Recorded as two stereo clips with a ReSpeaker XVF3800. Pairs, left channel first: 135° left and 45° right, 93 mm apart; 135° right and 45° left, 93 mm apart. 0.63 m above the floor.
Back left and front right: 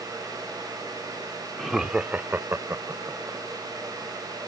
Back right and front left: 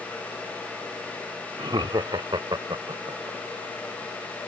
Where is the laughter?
45° left; by 3.4 s 5° left.